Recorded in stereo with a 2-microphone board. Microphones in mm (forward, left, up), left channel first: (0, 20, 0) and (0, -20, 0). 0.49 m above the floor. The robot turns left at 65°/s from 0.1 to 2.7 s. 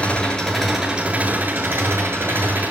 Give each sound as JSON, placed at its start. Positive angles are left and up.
{"t": 0.0, "sound": "an engine running", "azimuth_deg": 30, "distance_m": 7.5}